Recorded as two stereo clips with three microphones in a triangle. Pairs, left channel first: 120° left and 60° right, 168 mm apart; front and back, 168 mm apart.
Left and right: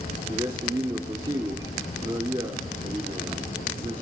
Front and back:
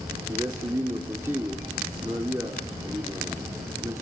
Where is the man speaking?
110° right, 1.6 m.